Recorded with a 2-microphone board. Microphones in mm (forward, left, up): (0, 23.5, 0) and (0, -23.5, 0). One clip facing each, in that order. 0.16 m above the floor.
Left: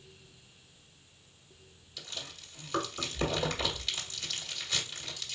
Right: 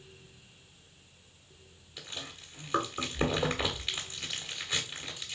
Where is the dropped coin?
I don't hear a dropped coin.